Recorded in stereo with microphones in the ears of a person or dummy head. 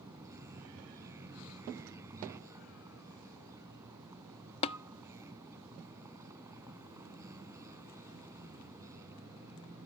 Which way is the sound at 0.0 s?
20° right (ahead or behind).